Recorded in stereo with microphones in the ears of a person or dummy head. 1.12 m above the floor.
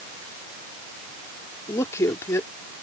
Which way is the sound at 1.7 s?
20° left (ahead or behind).